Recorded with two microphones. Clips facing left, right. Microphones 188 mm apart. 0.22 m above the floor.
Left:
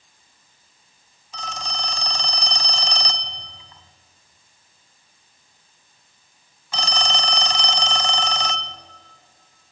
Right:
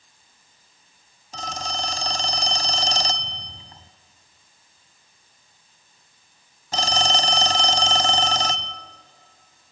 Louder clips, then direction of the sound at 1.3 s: Right 3 dB; 40° right (ahead or behind).